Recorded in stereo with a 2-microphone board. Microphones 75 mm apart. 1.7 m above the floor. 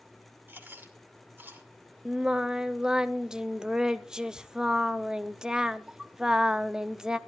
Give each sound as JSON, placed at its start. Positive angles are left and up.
{"t": 0.5, "sound": "chewing", "side_deg": -25, "distance_m": 2.0}
{"t": 2.0, "sound": "singing", "side_deg": -10, "distance_m": 0.6}